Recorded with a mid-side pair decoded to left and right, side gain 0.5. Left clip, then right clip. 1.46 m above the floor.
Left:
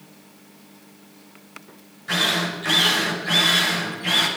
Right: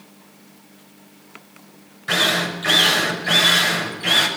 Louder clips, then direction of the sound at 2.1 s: Right 3 dB; 45° right.